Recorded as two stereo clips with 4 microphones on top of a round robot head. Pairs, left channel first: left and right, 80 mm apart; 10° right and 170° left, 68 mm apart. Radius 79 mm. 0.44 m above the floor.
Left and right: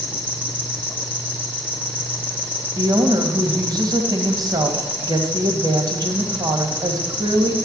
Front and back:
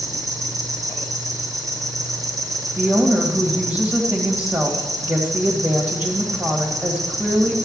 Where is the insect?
155° left, 2.5 m.